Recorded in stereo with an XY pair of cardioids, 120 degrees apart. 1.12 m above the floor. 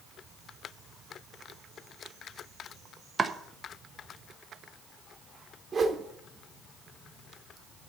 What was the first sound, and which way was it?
Chopping, 30° right.